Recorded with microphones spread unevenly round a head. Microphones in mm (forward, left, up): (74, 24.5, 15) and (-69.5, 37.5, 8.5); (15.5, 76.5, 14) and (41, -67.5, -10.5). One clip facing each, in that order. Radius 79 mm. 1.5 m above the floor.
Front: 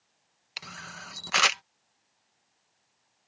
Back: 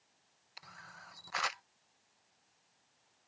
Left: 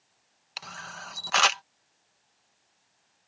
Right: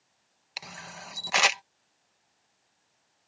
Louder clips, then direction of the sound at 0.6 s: Front 10 dB, left 1 dB; 5° right.